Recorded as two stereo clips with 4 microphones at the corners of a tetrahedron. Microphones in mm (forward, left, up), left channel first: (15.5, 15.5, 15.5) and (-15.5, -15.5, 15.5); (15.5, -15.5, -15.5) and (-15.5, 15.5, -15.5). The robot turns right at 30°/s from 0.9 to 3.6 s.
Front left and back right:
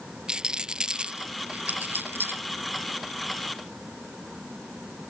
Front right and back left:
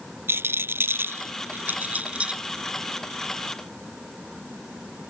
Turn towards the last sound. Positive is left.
turn(degrees=-125)